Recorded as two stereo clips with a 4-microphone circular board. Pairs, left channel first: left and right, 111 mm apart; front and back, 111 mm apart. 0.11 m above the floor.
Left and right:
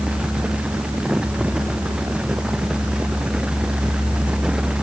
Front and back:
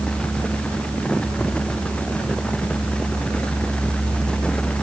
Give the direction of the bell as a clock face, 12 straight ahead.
No bell in this recording.